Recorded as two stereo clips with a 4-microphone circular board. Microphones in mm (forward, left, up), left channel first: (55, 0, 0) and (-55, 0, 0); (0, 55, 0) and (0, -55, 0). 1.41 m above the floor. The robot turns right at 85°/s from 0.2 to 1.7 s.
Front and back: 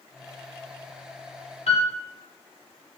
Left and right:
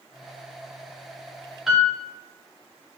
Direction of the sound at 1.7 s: 5° right.